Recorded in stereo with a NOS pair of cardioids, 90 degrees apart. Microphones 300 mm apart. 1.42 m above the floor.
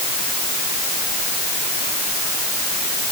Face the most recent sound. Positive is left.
No sound to turn to.